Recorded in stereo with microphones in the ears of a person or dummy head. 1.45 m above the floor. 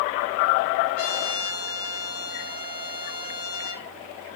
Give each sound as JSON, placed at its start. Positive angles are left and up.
{"t": 0.9, "sound": "a trumpet", "side_deg": 85, "distance_m": 3.0}